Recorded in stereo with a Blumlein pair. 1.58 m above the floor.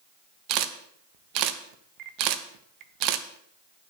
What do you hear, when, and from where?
0.5 s a camera shutter: 40° right, 1.1 m